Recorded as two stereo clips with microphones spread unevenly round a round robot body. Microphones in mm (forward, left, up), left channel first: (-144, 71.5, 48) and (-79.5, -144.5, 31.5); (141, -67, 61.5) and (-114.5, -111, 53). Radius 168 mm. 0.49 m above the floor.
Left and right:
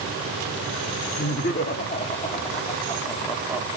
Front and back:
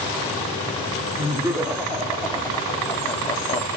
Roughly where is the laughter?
Behind left.